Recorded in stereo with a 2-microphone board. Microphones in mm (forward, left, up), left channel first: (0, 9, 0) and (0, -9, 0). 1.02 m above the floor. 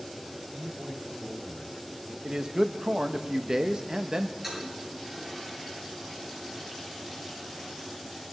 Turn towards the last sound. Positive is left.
turn(degrees=-20)  # may be behind; listen again after turning